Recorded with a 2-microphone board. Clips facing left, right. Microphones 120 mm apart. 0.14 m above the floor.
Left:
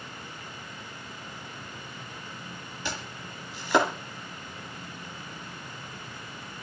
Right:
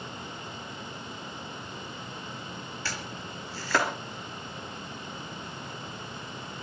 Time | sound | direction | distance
2.9 | chopping | 20° left (ahead or behind) | 2.5 m